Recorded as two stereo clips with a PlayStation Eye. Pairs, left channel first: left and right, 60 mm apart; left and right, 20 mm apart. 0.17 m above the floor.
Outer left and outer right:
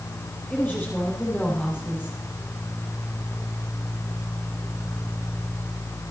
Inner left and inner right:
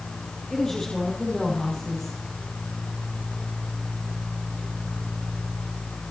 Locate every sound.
0.5 s a woman speaking: 25° left (ahead or behind), 5.5 m